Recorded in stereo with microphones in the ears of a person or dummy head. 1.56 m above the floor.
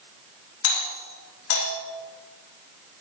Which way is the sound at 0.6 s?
70° left (ahead or behind).